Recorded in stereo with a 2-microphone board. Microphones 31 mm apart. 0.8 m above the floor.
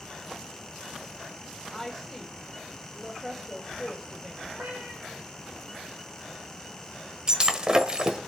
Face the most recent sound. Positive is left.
turn(degrees=-25)  # may be behind; listen again after turning